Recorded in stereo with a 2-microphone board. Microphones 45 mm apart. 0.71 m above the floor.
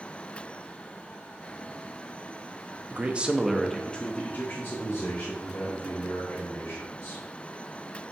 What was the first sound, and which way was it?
A man speaking, 40° right (ahead or behind).